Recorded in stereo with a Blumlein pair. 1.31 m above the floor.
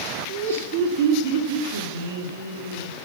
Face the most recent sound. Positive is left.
turn(degrees=-70)